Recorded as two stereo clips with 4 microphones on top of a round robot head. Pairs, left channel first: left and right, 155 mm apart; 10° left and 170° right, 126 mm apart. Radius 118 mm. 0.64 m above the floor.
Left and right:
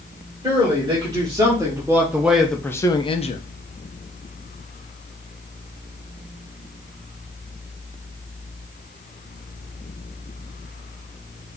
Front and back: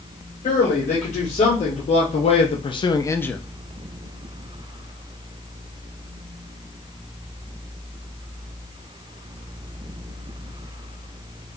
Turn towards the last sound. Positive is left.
turn(degrees=90)